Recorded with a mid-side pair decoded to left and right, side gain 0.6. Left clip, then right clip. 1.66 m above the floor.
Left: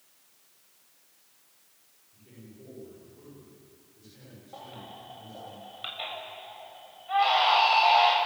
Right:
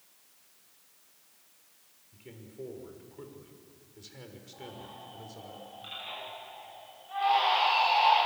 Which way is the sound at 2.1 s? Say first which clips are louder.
Right 6 dB; 55° right.